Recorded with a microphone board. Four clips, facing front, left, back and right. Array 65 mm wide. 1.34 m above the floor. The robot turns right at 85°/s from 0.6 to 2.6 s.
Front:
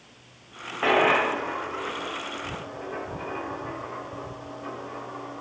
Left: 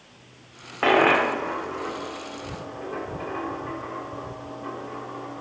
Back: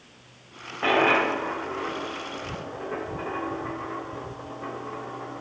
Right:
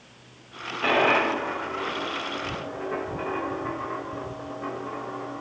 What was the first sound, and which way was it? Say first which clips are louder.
A dropped coin: left 3 dB, even; 80° left.